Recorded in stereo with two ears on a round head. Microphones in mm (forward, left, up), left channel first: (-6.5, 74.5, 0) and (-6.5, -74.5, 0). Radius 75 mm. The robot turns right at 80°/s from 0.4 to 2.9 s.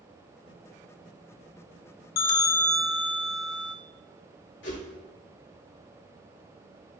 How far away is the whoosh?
About 2.5 m.